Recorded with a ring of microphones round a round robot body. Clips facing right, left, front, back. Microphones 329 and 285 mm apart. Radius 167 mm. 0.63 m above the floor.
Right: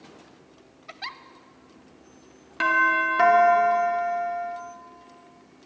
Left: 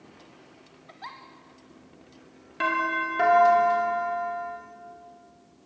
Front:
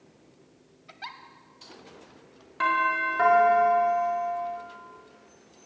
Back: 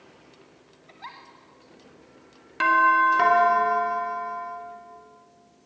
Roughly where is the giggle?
Ahead right.